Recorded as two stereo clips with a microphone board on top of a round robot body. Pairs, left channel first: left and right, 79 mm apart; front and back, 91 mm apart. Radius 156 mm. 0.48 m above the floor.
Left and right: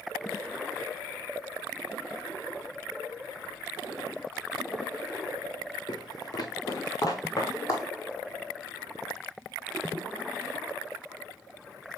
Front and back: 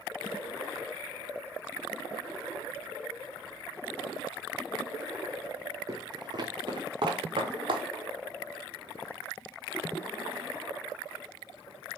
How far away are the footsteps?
About 0.6 m.